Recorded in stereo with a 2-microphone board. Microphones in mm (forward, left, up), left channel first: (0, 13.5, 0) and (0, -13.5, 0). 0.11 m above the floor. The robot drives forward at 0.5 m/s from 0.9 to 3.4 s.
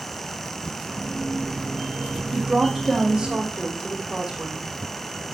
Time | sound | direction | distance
2.3 | a woman speaking | 20° right (ahead or behind) | 4 m